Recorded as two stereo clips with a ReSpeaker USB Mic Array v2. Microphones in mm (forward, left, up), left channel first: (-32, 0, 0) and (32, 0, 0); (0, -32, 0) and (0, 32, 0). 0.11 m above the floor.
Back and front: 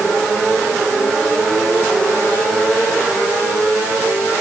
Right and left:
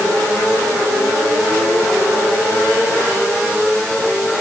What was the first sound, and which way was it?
Only background noise.